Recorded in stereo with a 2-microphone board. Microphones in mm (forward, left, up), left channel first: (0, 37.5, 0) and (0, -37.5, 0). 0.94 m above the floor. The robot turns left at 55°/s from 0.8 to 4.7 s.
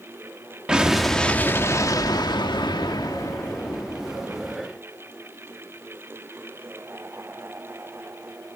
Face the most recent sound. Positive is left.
turn(degrees=-25)